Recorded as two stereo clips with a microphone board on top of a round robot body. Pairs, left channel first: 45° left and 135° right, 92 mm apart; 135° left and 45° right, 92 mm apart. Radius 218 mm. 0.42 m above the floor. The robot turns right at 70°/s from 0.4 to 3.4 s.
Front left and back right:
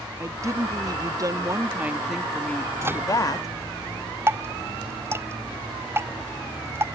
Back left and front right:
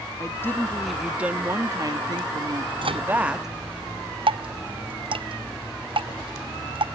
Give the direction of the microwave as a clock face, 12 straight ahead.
3 o'clock.